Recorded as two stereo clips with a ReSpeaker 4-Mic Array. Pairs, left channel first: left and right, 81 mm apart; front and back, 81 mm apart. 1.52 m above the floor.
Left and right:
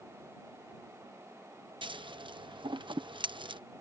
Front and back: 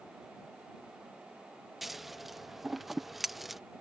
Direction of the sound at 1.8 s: 90° right.